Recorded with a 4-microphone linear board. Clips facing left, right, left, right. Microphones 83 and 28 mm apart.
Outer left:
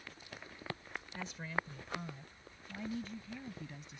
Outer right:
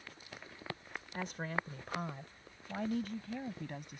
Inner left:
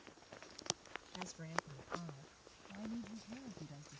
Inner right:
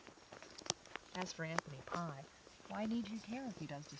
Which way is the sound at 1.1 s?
50° right (ahead or behind).